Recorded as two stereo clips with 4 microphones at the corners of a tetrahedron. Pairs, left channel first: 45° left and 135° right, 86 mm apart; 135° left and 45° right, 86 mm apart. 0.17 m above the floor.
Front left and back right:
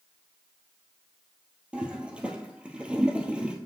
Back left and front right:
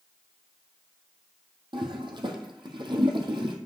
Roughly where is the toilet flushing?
Ahead right.